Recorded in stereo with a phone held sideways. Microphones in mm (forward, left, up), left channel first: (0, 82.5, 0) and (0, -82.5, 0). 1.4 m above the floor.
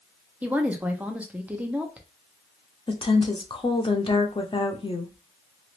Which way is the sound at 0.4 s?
10° right (ahead or behind).